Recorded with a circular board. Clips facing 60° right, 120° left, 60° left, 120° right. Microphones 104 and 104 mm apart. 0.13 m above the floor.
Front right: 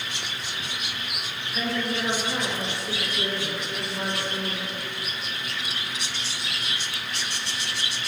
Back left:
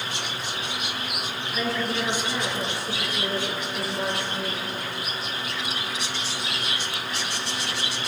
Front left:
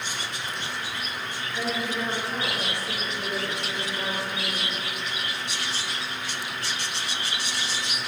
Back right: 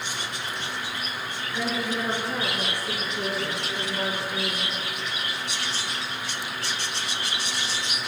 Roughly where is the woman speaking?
Behind right.